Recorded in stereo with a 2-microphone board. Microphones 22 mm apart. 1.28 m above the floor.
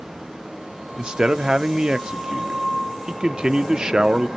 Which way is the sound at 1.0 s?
35° right (ahead or behind).